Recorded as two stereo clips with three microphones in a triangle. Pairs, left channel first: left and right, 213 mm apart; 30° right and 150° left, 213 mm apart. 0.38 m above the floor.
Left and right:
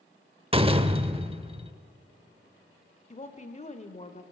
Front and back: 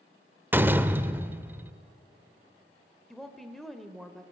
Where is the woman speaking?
60° left, 1.4 m.